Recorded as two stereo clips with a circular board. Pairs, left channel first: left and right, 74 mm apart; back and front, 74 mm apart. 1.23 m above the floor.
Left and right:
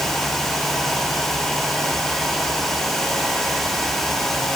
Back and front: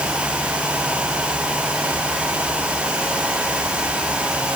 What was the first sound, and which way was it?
Only background noise.